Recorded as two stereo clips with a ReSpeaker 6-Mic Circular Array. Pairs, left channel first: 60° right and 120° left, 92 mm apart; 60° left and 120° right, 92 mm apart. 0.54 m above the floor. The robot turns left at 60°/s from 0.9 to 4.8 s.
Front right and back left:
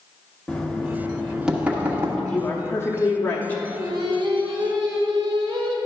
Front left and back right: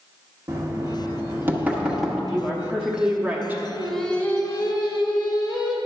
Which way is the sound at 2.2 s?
15° right.